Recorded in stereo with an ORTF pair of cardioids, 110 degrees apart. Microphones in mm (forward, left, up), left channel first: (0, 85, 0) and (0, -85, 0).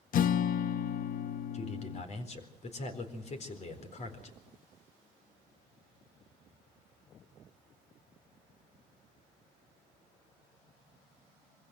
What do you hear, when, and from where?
0.1 s a guitar: 55° left, 0.8 m
1.5 s a man speaking: 45° left, 4 m